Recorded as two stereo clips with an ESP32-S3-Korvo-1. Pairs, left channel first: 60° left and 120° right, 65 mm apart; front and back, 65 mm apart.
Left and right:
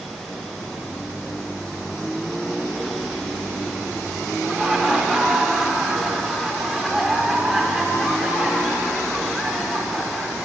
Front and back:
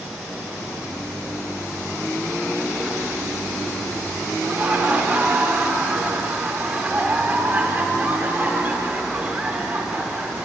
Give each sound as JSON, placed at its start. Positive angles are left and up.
{"t": 4.4, "sound": "laughter", "azimuth_deg": 155, "distance_m": 0.9}